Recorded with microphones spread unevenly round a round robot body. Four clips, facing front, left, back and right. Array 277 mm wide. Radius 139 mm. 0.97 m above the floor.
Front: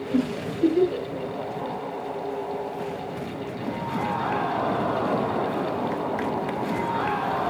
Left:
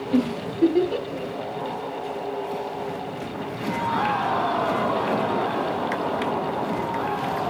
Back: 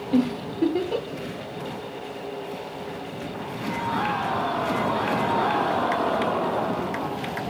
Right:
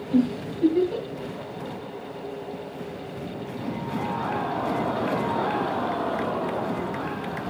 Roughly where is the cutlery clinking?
No cutlery clinking in this recording.